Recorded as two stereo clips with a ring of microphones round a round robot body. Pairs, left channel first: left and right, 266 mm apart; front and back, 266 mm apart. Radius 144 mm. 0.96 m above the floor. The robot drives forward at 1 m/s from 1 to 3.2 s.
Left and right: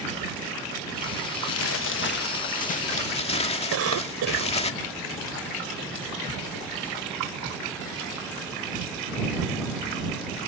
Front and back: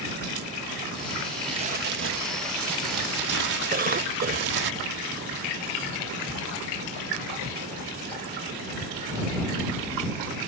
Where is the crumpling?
105° left; by 4.7 s 155° left.